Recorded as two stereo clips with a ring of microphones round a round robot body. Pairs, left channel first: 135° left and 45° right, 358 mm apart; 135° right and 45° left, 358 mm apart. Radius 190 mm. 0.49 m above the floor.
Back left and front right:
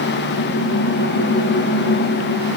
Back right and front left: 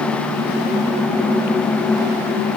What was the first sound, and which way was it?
Only background noise.